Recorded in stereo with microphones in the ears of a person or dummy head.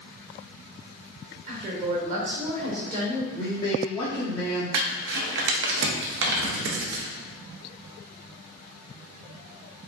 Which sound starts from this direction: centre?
A man speaking, at 3.3 s.